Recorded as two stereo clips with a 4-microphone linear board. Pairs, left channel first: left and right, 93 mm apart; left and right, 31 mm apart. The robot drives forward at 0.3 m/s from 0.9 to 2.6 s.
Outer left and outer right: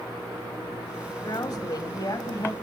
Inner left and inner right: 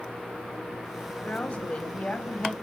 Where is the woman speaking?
45° left (ahead or behind), 1.9 m; by 2.5 s 40° left (ahead or behind), 2 m.